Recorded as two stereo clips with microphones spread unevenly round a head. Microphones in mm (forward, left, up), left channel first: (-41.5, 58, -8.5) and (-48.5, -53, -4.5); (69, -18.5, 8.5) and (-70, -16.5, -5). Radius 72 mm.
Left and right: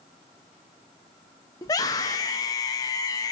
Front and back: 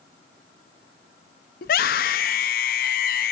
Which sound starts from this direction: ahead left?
A scream, at 1.6 s.